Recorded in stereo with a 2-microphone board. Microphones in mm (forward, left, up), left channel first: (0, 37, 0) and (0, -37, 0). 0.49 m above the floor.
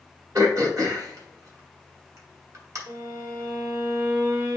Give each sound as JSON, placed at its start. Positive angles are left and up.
{"t": 0.3, "sound": "throat clearing", "side_deg": -50, "distance_m": 1.8}
{"t": 2.9, "sound": "a violin", "side_deg": -40, "distance_m": 1.4}